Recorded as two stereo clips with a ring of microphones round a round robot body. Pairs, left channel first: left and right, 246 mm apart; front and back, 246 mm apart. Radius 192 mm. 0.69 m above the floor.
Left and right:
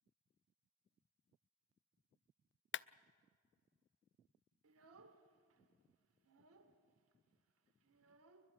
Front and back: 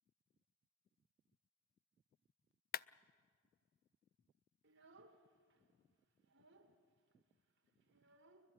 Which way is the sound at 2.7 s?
50° left.